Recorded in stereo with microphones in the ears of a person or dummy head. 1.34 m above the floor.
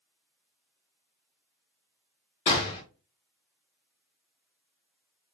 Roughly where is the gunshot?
Left.